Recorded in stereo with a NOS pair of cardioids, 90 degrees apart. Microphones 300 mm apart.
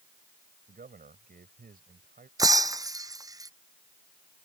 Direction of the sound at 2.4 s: 10° right.